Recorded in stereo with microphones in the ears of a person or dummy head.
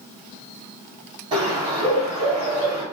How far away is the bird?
About 1.6 m.